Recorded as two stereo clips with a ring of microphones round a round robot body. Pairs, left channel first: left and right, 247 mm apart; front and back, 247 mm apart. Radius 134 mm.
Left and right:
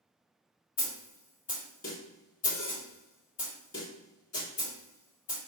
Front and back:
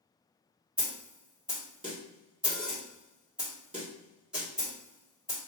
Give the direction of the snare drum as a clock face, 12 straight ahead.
9 o'clock.